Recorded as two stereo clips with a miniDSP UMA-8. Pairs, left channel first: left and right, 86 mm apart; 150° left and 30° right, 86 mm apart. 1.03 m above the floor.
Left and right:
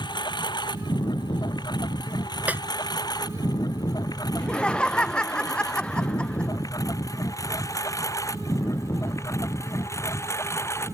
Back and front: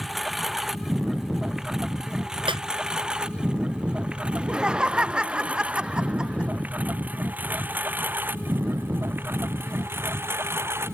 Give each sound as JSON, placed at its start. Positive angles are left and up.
{"t": 0.0, "sound": "a lawn mower", "azimuth_deg": 60}
{"t": 2.5, "sound": "a snare drum", "azimuth_deg": -20}
{"t": 4.3, "sound": "laughter", "azimuth_deg": 30}